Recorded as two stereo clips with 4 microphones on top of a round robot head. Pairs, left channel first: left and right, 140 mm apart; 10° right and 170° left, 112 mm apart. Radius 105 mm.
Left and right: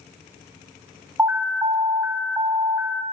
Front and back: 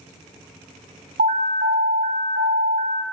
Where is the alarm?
165° right, 1.3 m.